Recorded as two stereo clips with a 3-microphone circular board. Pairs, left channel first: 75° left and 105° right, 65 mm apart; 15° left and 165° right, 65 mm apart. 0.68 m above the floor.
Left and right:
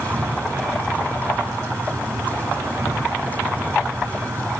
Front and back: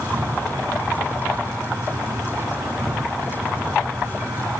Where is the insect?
145° right, 5.5 m.